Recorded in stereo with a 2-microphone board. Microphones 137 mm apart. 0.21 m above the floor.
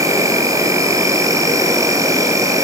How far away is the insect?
About 2.5 m.